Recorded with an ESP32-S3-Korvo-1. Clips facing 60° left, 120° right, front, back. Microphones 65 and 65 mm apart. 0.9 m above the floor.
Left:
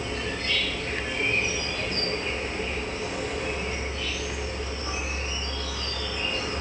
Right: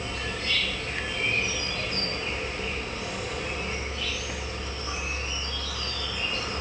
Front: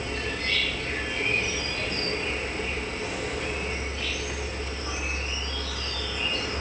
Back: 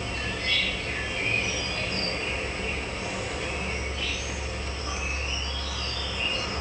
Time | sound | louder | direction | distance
0.0 | an insect | left 2 dB, front 1 dB | 35° left | 1.5 m